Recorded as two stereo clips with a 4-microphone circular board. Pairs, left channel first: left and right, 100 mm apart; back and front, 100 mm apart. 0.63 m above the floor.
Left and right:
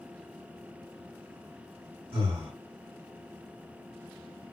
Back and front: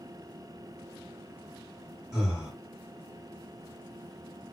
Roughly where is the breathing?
Right.